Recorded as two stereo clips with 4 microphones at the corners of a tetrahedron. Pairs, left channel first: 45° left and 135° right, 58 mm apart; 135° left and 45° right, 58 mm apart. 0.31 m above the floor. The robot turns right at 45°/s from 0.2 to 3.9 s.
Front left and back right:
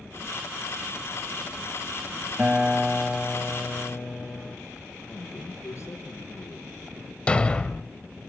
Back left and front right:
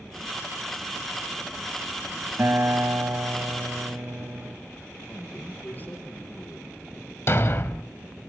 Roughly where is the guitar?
Right.